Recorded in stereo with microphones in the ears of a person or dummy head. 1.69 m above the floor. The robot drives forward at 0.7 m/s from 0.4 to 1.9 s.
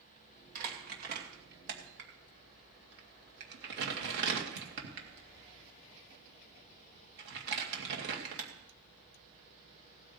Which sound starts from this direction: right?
Crumpling, at 0.6 s.